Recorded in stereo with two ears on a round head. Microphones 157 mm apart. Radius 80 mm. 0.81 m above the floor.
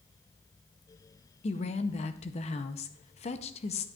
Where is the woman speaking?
35° left (ahead or behind), 0.6 m.